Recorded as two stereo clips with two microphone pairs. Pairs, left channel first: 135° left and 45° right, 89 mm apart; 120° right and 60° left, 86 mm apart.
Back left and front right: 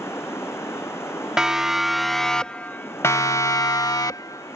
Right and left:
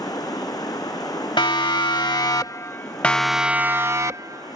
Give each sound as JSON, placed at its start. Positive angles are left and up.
{"t": 0.0, "sound": "running water", "azimuth_deg": -160}
{"t": 1.4, "sound": "a siren", "azimuth_deg": -125}